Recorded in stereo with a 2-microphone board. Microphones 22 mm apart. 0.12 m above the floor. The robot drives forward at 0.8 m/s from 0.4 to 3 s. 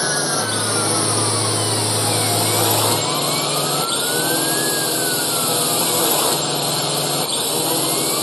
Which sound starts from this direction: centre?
A drone, at 0.0 s.